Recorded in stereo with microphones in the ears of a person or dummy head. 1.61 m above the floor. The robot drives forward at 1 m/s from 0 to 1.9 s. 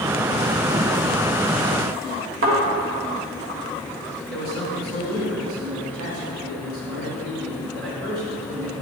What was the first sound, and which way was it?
A thud, 50° right (ahead or behind).